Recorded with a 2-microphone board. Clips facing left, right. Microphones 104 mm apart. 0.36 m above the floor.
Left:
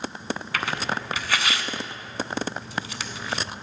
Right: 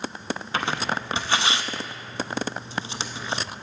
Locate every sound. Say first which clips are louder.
0.5 s tearing paper: right 2 dB; 25° right (ahead or behind), 0.6 m